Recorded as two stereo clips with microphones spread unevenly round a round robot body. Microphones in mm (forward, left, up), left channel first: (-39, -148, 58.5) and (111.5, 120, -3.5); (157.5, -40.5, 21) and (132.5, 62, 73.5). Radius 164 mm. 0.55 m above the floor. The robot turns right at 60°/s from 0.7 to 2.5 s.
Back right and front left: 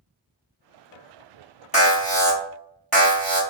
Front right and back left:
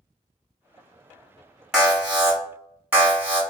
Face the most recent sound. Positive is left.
turn(degrees=-10)